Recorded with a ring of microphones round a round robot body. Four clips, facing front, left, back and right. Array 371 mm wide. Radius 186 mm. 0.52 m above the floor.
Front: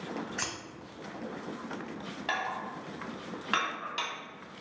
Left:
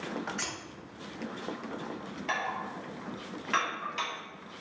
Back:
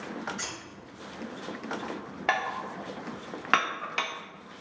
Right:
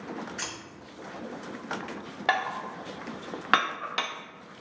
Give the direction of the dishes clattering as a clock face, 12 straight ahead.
4 o'clock.